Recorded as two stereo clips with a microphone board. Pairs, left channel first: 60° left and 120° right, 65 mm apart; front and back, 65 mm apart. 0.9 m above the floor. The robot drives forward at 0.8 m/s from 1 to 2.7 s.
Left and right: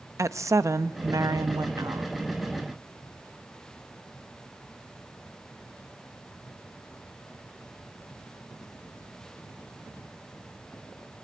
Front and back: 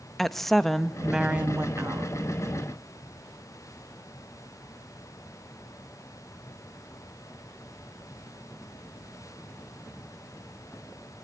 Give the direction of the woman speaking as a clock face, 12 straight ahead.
3 o'clock.